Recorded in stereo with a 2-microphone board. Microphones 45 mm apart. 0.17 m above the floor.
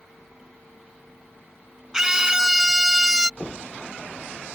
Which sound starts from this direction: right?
Knocking, at 3.4 s.